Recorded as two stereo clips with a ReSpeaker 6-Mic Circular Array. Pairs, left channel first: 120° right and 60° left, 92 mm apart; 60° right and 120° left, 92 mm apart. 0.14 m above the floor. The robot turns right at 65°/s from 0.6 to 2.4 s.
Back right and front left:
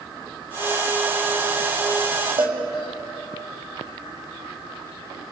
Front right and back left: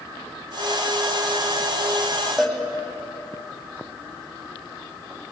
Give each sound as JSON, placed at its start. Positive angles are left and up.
{"t": 2.4, "sound": "a cowbell", "azimuth_deg": 25, "distance_m": 5.5}